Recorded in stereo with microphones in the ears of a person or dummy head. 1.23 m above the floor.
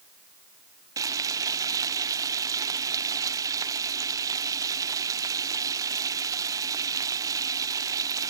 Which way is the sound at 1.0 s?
15° right (ahead or behind).